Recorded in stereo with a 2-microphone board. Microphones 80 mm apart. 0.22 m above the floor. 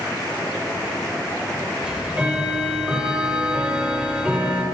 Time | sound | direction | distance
1.8 | ticking | 15° right (ahead or behind) | 6.5 m